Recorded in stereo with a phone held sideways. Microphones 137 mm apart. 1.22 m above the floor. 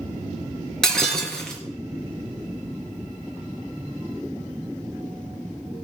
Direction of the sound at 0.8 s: 5° left (ahead or behind).